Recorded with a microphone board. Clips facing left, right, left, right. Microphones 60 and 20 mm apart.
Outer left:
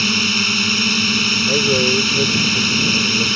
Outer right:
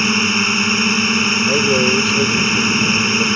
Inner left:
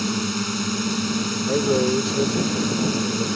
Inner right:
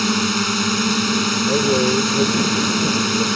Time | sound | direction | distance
0.0 | a drone | 25° right (ahead or behind) | ?
1.5 | a man speaking | 5° right (ahead or behind) | ?